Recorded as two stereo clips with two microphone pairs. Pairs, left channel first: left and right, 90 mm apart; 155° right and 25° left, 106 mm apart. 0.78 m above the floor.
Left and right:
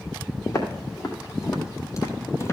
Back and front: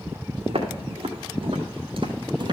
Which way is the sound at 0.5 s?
45° left.